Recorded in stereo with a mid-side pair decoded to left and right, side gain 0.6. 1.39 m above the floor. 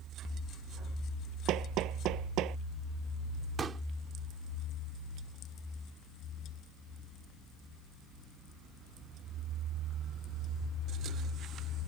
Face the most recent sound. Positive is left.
turn(degrees=-35)